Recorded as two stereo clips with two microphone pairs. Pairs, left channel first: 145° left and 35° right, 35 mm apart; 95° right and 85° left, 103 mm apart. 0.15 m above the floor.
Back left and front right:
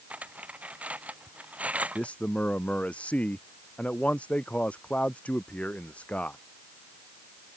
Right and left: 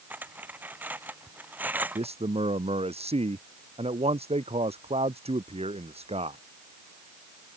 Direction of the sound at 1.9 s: 95° left.